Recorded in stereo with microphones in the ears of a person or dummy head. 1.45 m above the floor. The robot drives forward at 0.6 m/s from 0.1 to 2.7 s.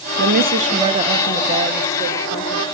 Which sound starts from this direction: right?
A woman speaking, at 0.2 s.